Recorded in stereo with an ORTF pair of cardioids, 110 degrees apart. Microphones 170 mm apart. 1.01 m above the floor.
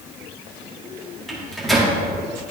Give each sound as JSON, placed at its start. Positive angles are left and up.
{"t": 1.3, "sound": "a microwave", "azimuth_deg": 0, "distance_m": 1.6}